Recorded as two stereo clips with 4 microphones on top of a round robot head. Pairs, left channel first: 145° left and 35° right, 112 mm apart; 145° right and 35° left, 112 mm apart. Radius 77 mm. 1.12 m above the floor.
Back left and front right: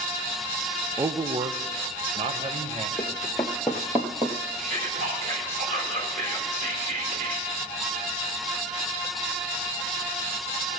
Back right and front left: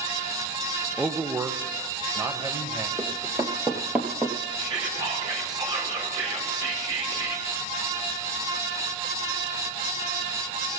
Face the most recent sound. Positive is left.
turn(degrees=-20)